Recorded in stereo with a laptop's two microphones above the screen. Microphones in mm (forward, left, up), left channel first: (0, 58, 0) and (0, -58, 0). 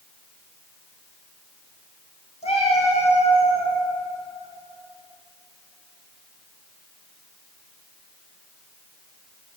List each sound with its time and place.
2.4 s a cat meowing: 60° left (ahead or behind), 2.5 m; by 3.7 s 65° left (ahead or behind), 4 m